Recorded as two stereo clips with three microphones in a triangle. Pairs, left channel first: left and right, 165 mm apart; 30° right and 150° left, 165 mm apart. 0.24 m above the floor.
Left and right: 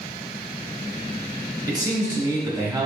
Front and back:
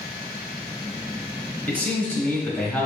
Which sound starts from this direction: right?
A man speaking, at 1.7 s.